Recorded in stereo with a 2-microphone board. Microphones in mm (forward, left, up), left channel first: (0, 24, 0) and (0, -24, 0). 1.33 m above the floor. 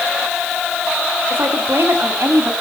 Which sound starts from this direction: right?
A woman speaking, at 1.3 s.